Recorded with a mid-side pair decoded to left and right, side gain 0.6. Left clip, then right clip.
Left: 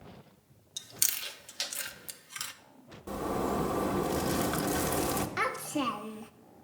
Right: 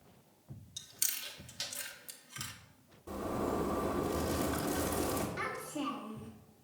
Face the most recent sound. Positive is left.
turn(degrees=55)